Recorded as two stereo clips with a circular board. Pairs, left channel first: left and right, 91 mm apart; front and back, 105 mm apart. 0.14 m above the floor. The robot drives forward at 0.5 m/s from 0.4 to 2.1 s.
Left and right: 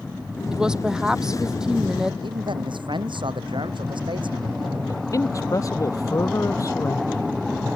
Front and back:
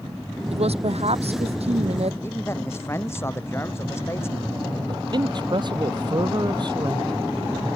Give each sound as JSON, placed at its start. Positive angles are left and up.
{"t": 0.5, "sound": "a woman speaking", "azimuth_deg": -170}
{"t": 2.2, "sound": "a man speaking", "azimuth_deg": -65}
{"t": 4.9, "sound": "a man speaking", "azimuth_deg": 140}